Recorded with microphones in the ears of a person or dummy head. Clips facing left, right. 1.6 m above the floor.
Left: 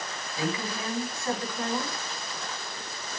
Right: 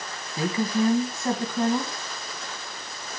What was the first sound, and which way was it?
A woman speaking, 40° right (ahead or behind).